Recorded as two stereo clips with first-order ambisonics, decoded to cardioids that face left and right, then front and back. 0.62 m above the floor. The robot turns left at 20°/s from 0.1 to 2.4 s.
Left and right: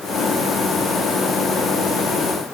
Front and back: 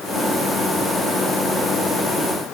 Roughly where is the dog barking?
I don't hear a dog barking.